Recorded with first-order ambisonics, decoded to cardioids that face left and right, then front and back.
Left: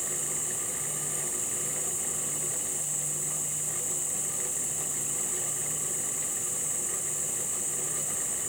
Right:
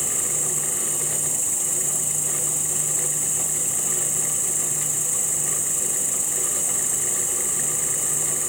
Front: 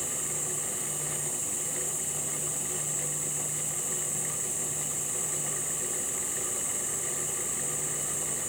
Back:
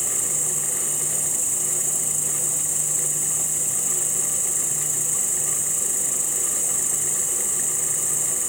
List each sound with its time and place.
0.0 s an insect: 135° right, 1.1 m